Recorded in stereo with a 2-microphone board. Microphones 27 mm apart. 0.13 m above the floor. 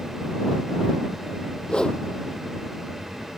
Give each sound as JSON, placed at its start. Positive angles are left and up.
{"t": 1.7, "sound": "a whoosh", "side_deg": 35}